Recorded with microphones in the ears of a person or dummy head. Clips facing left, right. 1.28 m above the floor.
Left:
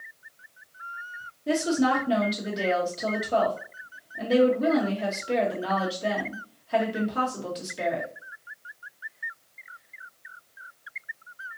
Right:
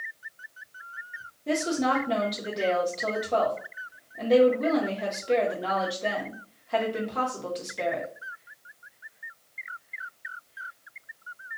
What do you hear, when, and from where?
1.5 s a woman speaking: centre (ahead or behind), 1.2 m